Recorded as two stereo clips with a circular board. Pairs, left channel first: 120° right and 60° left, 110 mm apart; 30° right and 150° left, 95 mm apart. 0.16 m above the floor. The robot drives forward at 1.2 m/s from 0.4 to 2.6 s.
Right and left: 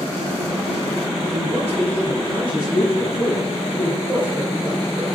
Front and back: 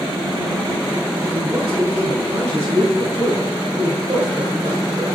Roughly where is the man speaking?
Behind left.